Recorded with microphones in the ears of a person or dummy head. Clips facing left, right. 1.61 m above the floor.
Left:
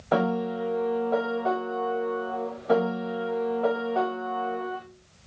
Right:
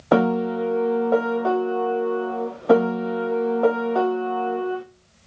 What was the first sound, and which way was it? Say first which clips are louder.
A piano: right 6 dB; 60° right (ahead or behind).